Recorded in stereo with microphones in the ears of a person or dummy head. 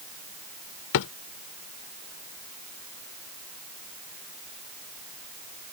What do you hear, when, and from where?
0.9 s a drawer: 70° left (ahead or behind)